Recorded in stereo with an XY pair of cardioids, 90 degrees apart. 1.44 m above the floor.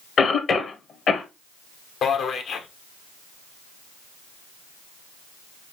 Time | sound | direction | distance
0.2 | a cough | 55° left | 1.2 m
2.0 | a man speaking | 70° left | 1.1 m